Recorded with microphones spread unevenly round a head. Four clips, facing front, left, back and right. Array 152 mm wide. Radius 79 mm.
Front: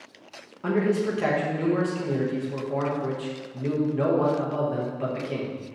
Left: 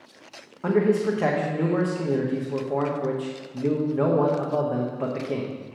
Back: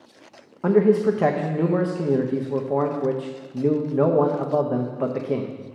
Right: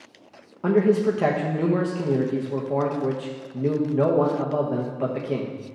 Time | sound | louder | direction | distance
0.6 | a man speaking | right 2 dB, back 7 dB | 165° right | 0.9 m